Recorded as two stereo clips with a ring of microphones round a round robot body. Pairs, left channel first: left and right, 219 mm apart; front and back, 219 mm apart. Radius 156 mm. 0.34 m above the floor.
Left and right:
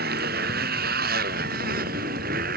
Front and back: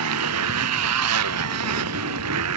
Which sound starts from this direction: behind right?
A motorcycle, at 0.0 s.